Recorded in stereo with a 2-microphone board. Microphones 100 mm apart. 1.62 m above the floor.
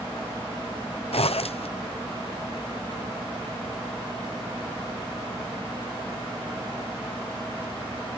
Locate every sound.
1.1 s a zipper: 75° left (ahead or behind)